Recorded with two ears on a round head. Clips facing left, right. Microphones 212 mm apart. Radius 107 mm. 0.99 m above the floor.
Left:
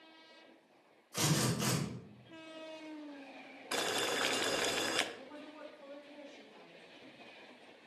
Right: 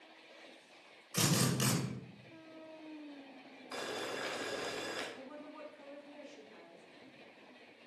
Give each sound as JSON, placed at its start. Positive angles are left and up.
{"t": 1.1, "sound": "a drill", "side_deg": -35, "distance_m": 1.6}
{"t": 3.7, "sound": "boiling", "side_deg": 65, "distance_m": 0.6}
{"t": 5.1, "sound": "a woman speaking", "side_deg": -55, "distance_m": 1.9}